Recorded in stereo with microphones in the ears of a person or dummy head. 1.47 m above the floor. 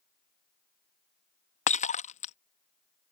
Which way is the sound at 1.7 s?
35° left (ahead or behind).